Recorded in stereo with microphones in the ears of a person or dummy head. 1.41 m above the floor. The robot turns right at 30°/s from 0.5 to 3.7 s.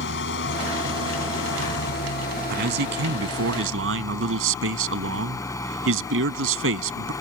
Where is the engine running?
70° left; by 7.2 s 165° left.